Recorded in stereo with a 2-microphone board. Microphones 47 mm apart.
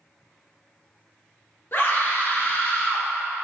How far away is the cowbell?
No cowbell in this recording.